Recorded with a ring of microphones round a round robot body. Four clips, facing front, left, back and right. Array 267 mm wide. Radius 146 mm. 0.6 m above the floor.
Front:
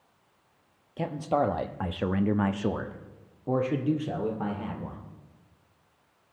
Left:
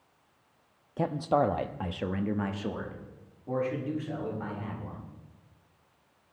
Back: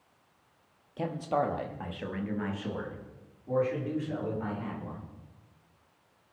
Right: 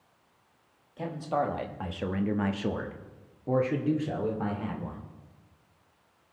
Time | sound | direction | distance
1.0 | a man speaking | 70° left | 0.8 m